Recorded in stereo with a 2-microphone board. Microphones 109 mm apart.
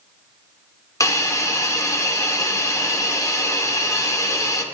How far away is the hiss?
About 1.3 m.